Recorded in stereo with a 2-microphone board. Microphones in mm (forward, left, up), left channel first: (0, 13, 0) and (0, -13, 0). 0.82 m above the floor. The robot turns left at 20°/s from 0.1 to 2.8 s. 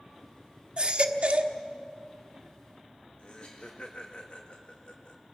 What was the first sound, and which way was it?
A baby crying, 45° right (ahead or behind).